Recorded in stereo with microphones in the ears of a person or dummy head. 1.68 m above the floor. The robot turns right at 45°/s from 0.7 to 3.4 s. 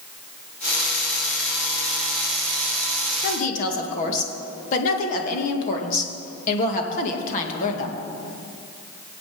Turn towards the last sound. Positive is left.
turn(degrees=45)  # may be behind; listen again after turning